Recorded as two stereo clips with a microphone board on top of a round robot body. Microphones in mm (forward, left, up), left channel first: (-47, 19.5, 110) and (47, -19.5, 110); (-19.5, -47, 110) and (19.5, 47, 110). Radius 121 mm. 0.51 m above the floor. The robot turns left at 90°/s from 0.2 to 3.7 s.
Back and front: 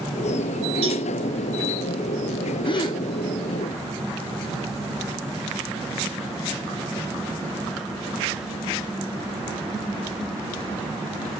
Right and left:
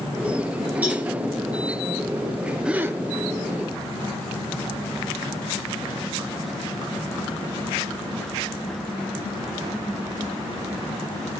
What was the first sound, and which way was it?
A cowbell, 5° right.